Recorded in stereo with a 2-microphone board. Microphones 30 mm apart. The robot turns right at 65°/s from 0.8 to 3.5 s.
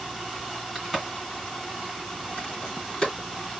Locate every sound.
0.8 s a crack: 5° right (ahead or behind), 2.5 m; by 3.1 s 30° left (ahead or behind), 2.5 m